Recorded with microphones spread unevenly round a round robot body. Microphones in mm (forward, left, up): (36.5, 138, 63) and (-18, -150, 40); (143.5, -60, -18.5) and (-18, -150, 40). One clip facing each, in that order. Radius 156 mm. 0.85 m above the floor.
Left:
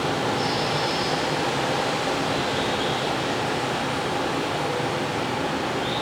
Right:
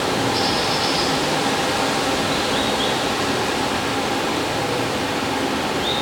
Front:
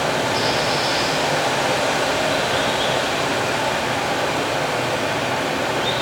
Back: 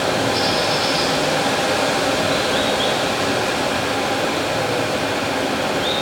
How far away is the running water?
About 1.4 m.